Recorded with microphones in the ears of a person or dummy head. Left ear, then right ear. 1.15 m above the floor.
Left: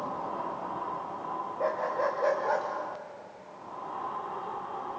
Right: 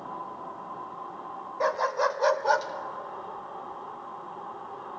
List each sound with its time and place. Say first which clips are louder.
1.6 s a dog barking: right 4 dB; 65° right (ahead or behind), 1.8 m; by 5.0 s 5° left (ahead or behind), 1.5 m